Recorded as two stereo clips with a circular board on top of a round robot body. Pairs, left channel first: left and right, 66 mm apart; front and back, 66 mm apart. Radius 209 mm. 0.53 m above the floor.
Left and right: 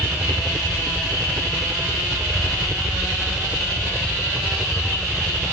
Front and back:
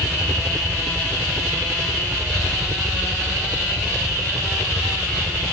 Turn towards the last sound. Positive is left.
turn(degrees=-170)